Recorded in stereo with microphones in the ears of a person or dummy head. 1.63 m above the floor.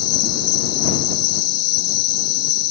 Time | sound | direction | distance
0.0 | an insect | 55° left (ahead or behind) | ?